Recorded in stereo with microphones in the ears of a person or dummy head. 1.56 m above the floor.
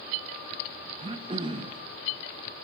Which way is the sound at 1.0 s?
25° right (ahead or behind).